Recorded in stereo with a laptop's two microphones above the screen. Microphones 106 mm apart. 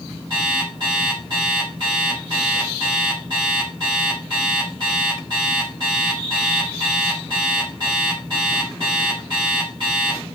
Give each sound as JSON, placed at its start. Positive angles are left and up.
{"t": 0.3, "sound": "an alarm clock", "side_deg": -45, "distance_m": 1.3}